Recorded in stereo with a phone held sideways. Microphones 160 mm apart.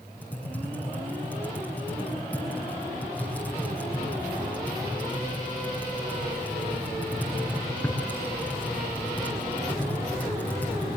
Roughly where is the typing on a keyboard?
Centre.